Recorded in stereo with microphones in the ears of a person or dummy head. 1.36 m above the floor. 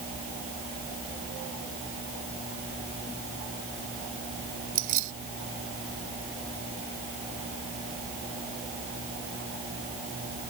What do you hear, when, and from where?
4.8 s keys jangling: 45° right (ahead or behind)